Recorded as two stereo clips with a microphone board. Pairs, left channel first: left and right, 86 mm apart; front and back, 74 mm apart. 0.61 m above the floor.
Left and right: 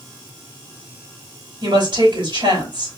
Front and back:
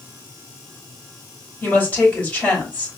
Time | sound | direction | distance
1.6 | a woman speaking | 70° right | 3.5 m